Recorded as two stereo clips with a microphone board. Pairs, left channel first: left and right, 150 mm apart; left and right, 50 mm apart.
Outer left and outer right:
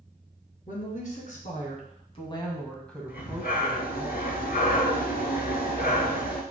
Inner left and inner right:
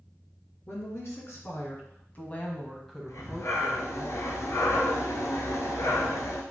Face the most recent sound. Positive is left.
turn(degrees=75)  # may be behind; listen again after turning